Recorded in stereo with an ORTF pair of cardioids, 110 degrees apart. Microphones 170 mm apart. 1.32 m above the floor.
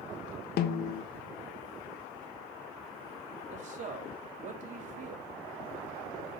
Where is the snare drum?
70° left, 0.9 m.